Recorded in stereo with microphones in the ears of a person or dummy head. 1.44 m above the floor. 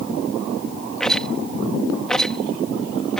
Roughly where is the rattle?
Centre.